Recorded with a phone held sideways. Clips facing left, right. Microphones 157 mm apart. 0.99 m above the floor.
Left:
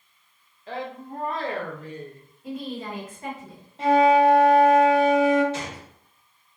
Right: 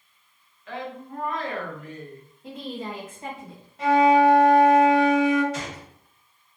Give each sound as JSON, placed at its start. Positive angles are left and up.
{"t": 0.7, "sound": "a woman speaking", "side_deg": 35, "distance_m": 0.6}
{"t": 2.4, "sound": "a woman speaking", "side_deg": -30, "distance_m": 1.5}
{"t": 3.8, "sound": "a flute", "side_deg": 30, "distance_m": 0.8}
{"t": 5.5, "sound": "a gunshot", "side_deg": 25, "distance_m": 1.2}